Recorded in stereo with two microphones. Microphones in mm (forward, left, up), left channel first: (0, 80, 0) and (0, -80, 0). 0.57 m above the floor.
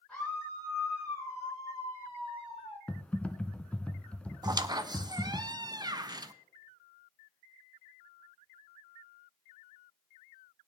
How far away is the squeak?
About 0.5 m.